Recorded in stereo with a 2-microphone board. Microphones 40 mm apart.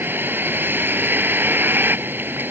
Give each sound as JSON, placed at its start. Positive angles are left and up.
{"t": 0.0, "sound": "a vehicle", "side_deg": -55}